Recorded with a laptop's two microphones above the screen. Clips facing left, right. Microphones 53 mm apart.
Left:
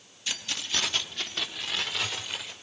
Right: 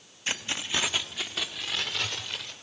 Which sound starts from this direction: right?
Keys jangling, at 0.3 s.